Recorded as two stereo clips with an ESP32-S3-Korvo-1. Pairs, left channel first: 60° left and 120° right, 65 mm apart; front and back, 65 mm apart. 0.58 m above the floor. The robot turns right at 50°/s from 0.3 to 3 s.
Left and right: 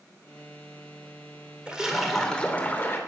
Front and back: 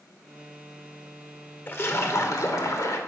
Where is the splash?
50° right, 2 m; by 3.0 s 15° left, 2 m.